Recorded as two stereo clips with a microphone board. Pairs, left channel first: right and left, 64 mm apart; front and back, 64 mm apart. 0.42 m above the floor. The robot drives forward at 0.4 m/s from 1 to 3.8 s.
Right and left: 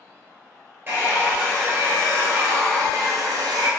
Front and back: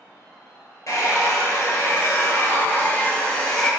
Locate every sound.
0.9 s a hair dryer: 35° left, 1.4 m; by 3.7 s 85° left, 0.8 m